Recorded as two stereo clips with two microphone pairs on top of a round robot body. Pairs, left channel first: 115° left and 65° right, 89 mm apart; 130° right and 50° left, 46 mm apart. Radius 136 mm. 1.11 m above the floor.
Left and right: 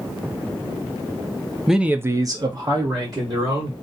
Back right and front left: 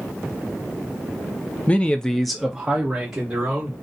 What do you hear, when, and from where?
1.7 s a man speaking: 160° right, 0.6 m; by 3.7 s 20° right, 1.5 m